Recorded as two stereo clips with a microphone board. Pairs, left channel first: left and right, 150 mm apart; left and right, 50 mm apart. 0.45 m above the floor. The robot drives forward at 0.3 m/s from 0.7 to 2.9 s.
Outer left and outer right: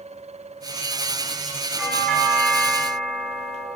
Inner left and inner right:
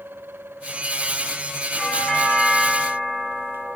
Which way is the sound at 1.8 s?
Centre (ahead or behind).